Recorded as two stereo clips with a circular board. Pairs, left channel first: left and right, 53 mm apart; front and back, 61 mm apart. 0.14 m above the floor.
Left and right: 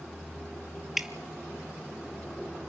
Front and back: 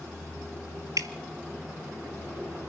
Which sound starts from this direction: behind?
Dripping, at 1.0 s.